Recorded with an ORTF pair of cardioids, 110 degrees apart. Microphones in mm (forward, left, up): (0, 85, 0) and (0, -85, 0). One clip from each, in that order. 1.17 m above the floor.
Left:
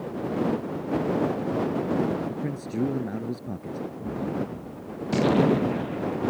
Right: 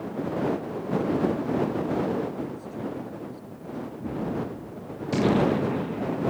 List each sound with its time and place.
2.3 s a man speaking: 65° left
4.0 s a gunshot: 5° left